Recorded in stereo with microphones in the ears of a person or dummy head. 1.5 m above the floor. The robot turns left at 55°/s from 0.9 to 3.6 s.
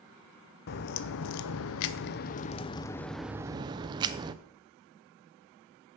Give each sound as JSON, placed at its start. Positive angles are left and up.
{"t": 0.7, "sound": "a crack", "azimuth_deg": 125, "distance_m": 0.5}